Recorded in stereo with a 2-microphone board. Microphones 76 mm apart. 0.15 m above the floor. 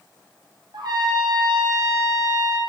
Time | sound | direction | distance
0.7 | a trumpet | 70° right (ahead or behind) | 0.8 m